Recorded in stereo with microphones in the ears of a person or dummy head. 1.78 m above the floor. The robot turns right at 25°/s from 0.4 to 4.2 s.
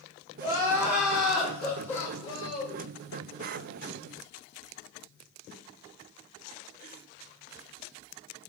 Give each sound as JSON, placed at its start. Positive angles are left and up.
{"t": 0.4, "sound": "crying", "azimuth_deg": -20, "distance_m": 0.8}